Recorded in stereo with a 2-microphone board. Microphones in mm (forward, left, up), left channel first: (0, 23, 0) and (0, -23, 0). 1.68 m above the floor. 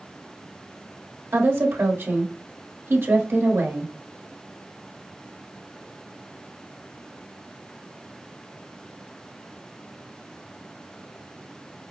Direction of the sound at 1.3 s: 60° right (ahead or behind).